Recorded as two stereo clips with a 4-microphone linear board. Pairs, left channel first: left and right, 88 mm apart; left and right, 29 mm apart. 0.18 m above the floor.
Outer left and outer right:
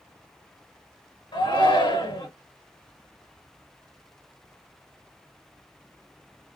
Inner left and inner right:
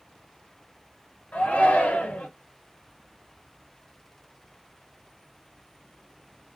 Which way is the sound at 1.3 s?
65° left (ahead or behind).